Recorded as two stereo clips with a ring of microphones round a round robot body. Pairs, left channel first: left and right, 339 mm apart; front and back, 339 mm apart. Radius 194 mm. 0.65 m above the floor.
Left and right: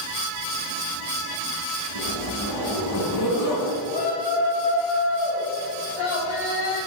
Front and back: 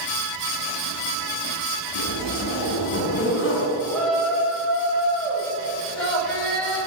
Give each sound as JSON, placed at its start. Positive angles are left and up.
{"t": 1.9, "sound": "a zipper", "azimuth_deg": 55, "distance_m": 2.5}
{"t": 3.9, "sound": "a shout", "azimuth_deg": 85, "distance_m": 4.0}